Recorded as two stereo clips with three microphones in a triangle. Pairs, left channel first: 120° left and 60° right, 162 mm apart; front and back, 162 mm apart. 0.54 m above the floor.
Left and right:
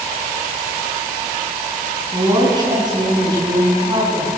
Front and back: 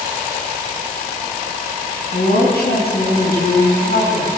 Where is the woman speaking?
Straight ahead, 4.5 m.